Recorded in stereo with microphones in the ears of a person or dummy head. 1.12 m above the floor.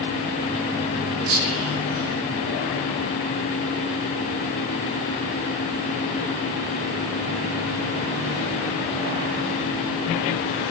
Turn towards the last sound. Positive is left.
turn(degrees=-70)  # may be behind; listen again after turning